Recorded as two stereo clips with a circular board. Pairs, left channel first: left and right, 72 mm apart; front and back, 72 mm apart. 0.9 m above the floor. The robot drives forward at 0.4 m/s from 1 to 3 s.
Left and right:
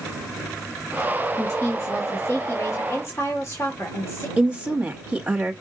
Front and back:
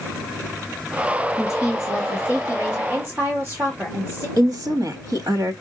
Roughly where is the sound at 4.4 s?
Behind.